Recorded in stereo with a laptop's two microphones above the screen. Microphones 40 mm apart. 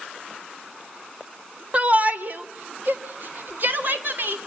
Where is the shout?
35° right (ahead or behind), 1.2 m; by 4.4 s 55° right (ahead or behind), 3.5 m.